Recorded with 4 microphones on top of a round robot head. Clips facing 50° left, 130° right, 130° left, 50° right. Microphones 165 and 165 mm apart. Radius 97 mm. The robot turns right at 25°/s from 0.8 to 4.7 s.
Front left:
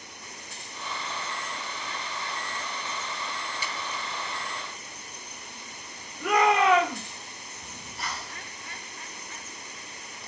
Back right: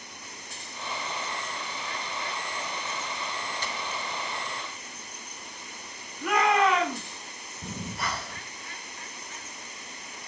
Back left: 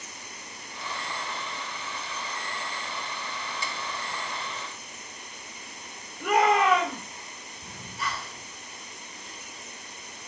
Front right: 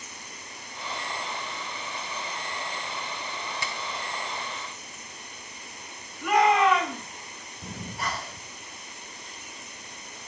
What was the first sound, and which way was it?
A finger snap, 30° right.